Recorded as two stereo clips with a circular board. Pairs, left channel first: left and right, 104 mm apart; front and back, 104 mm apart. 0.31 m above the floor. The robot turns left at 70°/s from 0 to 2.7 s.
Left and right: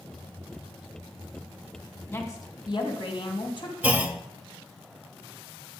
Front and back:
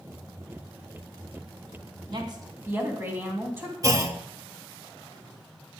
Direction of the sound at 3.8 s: 155° right.